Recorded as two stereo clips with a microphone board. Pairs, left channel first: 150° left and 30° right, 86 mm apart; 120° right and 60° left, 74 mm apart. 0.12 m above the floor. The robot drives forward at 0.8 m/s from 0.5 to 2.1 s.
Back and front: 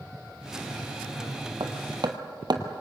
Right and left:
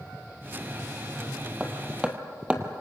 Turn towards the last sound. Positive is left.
turn(degrees=-15)